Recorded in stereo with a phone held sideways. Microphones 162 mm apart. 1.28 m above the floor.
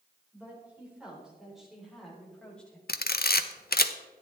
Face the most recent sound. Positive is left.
turn(degrees=75)  # may be behind; listen again after turning